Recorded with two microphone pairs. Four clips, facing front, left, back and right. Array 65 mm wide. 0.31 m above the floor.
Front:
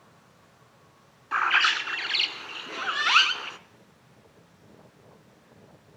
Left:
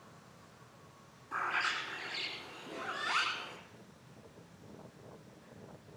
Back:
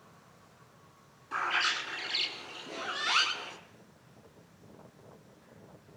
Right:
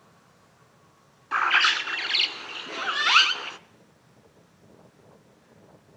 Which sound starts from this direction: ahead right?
A bird, at 1.3 s.